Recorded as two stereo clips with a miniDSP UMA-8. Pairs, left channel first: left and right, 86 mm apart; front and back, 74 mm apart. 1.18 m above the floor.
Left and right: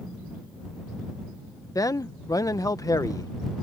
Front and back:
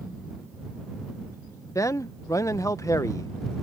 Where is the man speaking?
45° left.